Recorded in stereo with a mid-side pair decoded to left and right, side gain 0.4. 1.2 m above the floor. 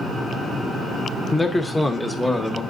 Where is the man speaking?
20° left, 0.7 m; by 2.6 s 5° left, 1.3 m.